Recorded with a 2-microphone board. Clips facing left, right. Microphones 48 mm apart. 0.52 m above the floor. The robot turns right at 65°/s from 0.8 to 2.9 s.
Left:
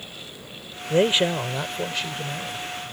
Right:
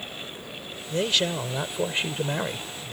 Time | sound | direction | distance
0.9 | a man speaking | 135° left | ?